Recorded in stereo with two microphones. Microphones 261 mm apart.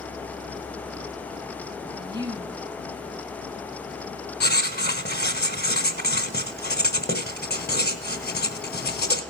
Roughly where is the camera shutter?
No camera shutter in this recording.